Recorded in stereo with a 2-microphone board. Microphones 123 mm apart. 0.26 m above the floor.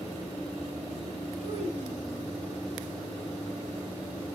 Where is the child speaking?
65° right (ahead or behind), 2 m.